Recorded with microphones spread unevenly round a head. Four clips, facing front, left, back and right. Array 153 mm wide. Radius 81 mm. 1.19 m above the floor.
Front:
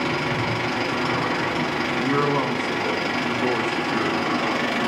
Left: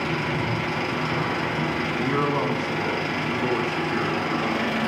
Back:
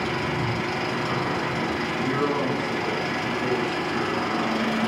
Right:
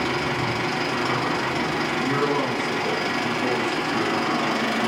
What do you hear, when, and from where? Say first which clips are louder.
0.0 s an engine running: right 2 dB, front 2 dB; 20° right, 1.4 m
2.0 s a man speaking: even, front 3 dB; 15° left, 0.8 m